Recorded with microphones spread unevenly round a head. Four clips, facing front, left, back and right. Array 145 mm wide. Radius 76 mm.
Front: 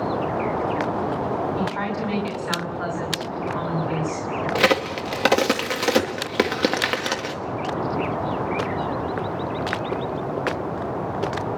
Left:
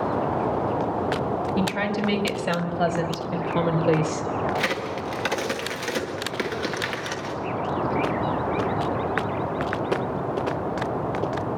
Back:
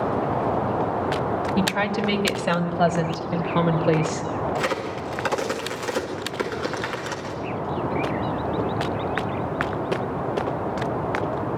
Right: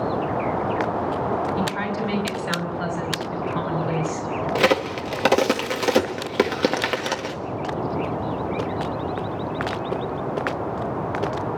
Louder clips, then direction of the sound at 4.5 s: Right 6 dB, front 5 dB; 45° right.